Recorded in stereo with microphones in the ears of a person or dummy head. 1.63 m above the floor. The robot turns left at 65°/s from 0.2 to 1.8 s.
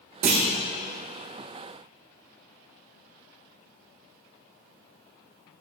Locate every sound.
0.2 s a clunk: 40° right (ahead or behind), 0.7 m; by 0.4 s 30° right (ahead or behind), 0.7 m